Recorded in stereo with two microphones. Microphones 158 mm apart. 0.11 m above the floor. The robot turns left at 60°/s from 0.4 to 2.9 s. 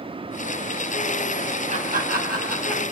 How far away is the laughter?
About 3.5 m.